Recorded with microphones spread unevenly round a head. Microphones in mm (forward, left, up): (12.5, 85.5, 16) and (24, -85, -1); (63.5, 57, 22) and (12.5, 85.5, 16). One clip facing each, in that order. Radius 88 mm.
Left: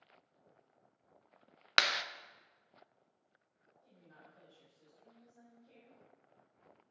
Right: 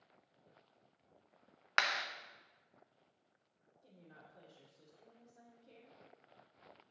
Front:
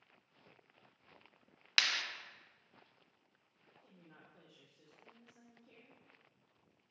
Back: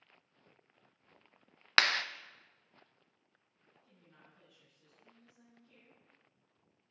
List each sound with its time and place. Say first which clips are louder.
1.8 s a clap: left 2 dB, back 7 dB; 140° left, 0.5 m
3.8 s a woman speaking: right 2 dB, front 2 dB; 35° right, 3 m